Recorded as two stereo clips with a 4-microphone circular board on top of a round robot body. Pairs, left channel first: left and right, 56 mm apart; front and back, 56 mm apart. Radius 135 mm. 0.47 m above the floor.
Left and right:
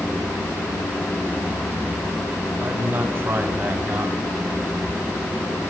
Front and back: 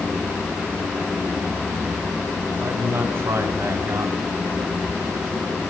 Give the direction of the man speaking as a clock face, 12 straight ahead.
5 o'clock.